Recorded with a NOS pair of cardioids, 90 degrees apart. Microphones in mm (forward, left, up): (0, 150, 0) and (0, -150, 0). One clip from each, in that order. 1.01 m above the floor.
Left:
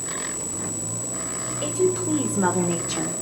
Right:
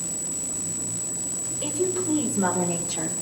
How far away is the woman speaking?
About 4 m.